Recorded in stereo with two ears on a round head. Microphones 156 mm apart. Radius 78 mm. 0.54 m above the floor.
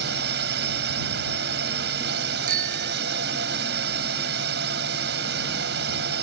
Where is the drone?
65° right (ahead or behind).